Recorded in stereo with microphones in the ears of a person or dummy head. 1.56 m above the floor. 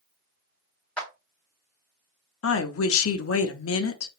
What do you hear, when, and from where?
1.0 s a clap: 10° left (ahead or behind), 0.9 m
2.4 s a woman speaking: 80° left, 0.6 m